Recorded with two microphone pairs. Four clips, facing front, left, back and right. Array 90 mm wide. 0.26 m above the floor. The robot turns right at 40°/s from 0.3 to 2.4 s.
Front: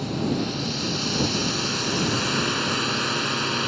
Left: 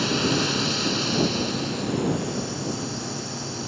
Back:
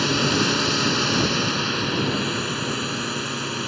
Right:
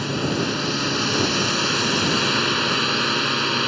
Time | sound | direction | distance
0.0 | a drone | 175° right | ?